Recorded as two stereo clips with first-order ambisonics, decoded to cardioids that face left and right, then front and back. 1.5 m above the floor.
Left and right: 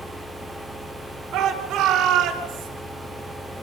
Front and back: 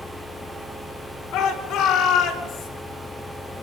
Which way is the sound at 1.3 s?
35° right.